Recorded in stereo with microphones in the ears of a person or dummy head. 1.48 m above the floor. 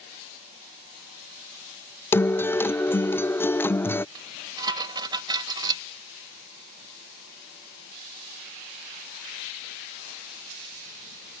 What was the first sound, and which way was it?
A guitar, 10° left (ahead or behind).